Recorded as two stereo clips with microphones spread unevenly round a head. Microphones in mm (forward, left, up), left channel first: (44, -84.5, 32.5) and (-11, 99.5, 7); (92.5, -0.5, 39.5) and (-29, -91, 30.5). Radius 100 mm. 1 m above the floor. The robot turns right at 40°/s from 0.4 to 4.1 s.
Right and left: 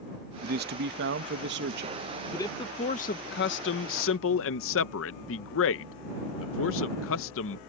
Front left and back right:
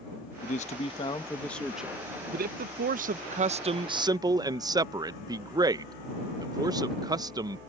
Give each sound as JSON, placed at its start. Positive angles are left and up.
{"t": 0.4, "sound": "a man speaking", "azimuth_deg": 75}
{"t": 2.3, "sound": "a man speaking", "azimuth_deg": -155}